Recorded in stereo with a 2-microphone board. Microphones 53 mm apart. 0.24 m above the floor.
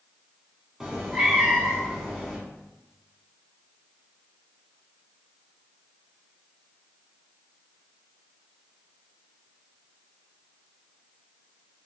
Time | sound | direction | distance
0.8 | a cat meowing | 15° right (ahead or behind) | 0.8 m